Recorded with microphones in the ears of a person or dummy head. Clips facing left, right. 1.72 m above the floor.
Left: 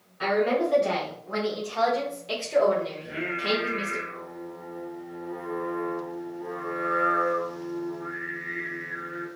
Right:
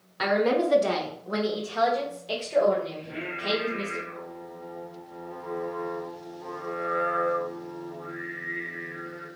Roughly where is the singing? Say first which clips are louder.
Left 2 dB; left.